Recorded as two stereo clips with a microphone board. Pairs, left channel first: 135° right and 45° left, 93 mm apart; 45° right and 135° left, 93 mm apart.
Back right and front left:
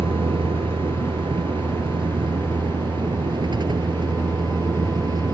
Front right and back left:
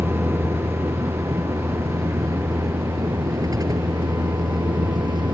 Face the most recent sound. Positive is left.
turn(degrees=90)